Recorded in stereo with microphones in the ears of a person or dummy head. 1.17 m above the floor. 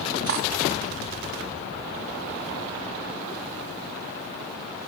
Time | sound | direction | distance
0.3 | cutlery clinking | 70° right (ahead or behind) | 1.0 m